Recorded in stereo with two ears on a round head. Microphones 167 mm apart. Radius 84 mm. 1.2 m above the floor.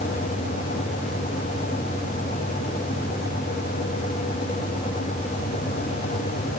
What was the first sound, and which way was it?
Only background noise.